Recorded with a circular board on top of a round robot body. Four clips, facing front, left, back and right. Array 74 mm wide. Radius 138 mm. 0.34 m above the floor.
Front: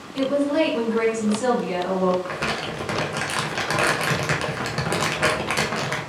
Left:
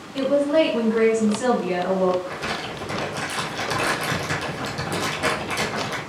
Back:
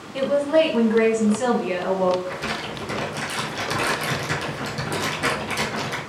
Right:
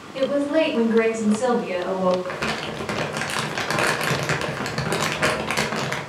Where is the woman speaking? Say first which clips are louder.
Left 2 dB, back 2 dB; straight behind, 1.2 m.